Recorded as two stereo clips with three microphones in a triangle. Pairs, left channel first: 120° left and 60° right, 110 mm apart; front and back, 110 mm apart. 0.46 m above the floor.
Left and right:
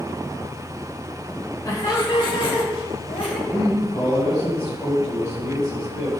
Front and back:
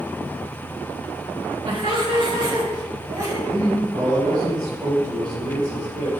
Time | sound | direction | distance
1.6 | laughter | 170° left | 1.8 m
3.5 | a man speaking | 150° left | 2.5 m